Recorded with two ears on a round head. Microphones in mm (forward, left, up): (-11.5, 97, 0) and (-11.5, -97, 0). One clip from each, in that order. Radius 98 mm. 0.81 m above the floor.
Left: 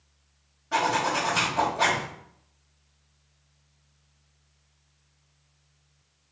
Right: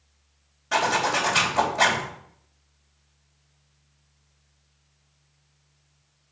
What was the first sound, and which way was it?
A zipper, 80° right.